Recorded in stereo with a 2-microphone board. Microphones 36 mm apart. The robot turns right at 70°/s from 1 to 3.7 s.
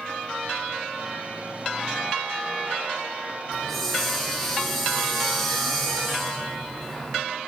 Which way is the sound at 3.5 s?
20° left (ahead or behind).